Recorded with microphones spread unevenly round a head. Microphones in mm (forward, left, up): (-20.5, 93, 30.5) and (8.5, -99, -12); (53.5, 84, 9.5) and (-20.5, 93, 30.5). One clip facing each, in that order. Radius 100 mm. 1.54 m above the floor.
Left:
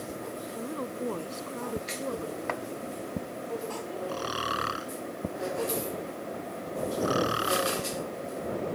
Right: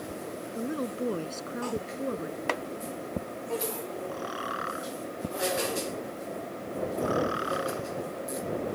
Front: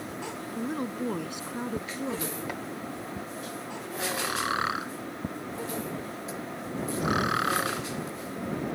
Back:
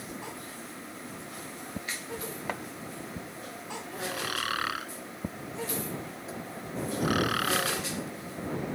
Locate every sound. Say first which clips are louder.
0.6 s a woman speaking: right 4 dB, front 11 dB; 10° right
2.5 s chopping: right 5 dB, back 1 dB; 130° right
4.1 s snoring: left 1 dB, front 4 dB; 60° left